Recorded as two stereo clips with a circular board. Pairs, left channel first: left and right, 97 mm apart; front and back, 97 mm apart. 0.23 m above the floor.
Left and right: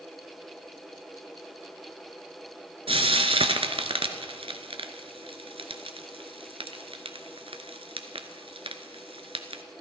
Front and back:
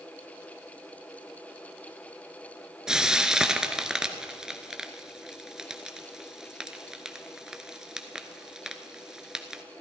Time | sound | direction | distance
2.9 | frying | 100° right | 1.0 m